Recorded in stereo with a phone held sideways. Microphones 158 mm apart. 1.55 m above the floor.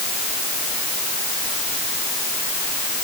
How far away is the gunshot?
No gunshot in this recording.